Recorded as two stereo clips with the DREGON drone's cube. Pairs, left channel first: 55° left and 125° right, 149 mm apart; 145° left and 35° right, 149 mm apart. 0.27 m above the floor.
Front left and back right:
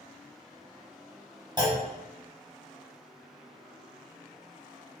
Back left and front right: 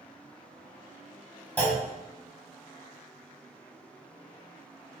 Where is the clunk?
145° right, 0.8 m.